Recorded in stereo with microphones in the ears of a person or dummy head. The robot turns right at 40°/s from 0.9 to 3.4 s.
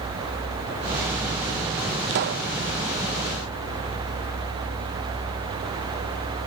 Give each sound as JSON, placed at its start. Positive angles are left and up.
{"t": 2.1, "sound": "a pop", "side_deg": -60, "distance_m": 0.9}